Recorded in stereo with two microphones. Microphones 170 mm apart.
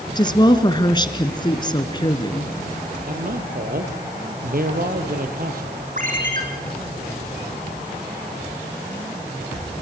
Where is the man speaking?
60° right (ahead or behind), 3 m.